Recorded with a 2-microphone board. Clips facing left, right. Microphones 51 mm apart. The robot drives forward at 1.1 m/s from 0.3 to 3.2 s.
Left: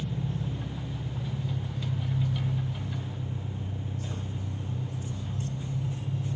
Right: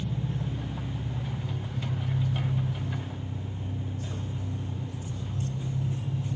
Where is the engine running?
10° right (ahead or behind), 1.8 m; by 6.4 s 5° right (ahead or behind), 5 m.